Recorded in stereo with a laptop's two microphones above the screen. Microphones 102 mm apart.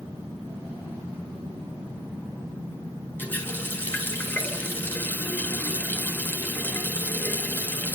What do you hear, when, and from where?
3.2 s a running tap: 20° left (ahead or behind), 2.5 m